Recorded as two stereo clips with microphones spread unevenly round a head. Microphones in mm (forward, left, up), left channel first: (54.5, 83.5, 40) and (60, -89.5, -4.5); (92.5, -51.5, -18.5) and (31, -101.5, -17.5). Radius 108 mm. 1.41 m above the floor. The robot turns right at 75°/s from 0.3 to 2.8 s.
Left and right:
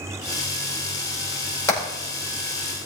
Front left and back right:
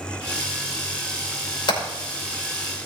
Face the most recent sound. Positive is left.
turn(degrees=100)